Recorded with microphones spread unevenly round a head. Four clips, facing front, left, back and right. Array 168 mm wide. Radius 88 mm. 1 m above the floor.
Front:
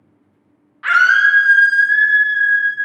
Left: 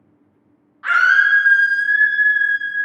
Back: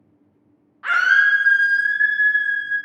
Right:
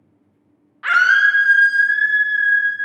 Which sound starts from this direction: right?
A scream, at 0.8 s.